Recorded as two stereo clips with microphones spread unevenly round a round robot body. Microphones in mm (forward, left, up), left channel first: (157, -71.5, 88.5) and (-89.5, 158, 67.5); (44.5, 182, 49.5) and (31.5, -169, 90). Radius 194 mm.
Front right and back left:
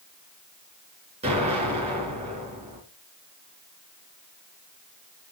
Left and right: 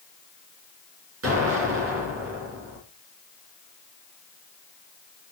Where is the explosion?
150° right, 4.5 m.